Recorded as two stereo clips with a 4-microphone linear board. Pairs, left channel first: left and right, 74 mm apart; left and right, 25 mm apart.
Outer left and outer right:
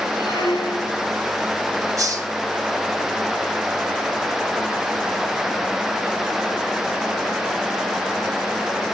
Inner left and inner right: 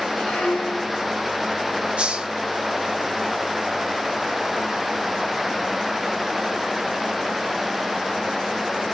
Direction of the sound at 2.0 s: 50° right (ahead or behind).